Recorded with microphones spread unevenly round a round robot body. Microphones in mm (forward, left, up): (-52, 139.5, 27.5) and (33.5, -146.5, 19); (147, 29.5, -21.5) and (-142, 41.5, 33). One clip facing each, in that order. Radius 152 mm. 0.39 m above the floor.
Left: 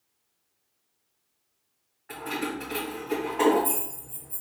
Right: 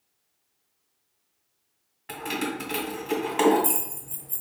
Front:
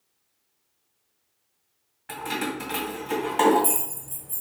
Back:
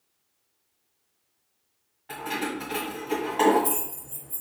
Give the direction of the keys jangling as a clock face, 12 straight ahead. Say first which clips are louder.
Right 1 dB, front 1 dB; 2 o'clock.